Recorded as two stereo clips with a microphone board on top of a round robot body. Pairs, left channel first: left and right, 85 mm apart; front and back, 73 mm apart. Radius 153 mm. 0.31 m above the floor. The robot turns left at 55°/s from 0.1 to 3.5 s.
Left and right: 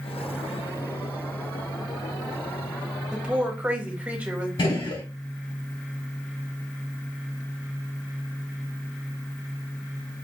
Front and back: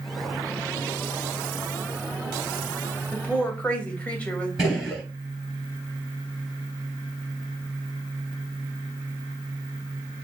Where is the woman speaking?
20° right, 1.5 m; by 4.5 s 45° right, 1.5 m.